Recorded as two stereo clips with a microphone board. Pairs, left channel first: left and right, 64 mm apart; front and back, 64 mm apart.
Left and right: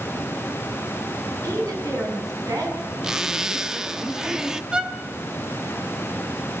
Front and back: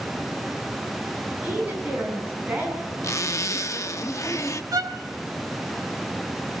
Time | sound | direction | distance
1.4 | a woman speaking | 115° right | 9 m
3.0 | a zipper | 15° right | 0.8 m
4.7 | a violin | 165° right | 1.6 m